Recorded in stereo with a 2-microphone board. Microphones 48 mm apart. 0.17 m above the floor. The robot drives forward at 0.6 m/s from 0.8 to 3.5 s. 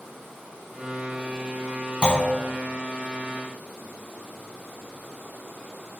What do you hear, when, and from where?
2.0 s a clunk: 20° left (ahead or behind), 0.5 m